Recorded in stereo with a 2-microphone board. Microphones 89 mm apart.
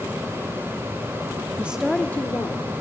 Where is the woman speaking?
20° right (ahead or behind), 0.9 m; by 2.7 s 40° left (ahead or behind), 1.6 m.